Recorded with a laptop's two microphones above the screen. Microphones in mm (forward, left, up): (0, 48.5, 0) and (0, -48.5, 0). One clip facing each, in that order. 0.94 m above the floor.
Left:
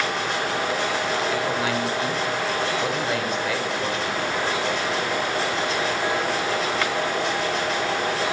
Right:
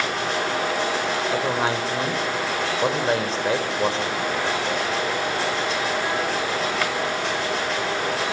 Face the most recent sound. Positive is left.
turn(degrees=-30)  # may be behind; listen again after turning